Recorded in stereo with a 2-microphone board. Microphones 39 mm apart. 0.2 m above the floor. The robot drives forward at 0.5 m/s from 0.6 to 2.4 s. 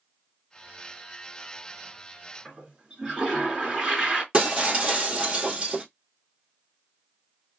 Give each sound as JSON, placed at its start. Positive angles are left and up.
{"t": 2.5, "sound": "a toilet flushing", "side_deg": -10, "distance_m": 2.0}
{"t": 4.3, "sound": "breaking glass", "side_deg": -25, "distance_m": 1.5}